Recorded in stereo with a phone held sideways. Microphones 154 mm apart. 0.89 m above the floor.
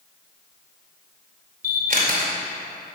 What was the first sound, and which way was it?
A camera shutter, 65° right (ahead or behind).